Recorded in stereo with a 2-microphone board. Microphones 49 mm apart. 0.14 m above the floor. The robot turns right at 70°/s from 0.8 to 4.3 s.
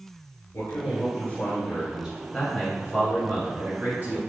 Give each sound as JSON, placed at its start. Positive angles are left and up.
{"t": 0.5, "sound": "a man speaking", "azimuth_deg": 100, "distance_m": 1.7}
{"t": 2.3, "sound": "a man speaking", "azimuth_deg": 165, "distance_m": 1.8}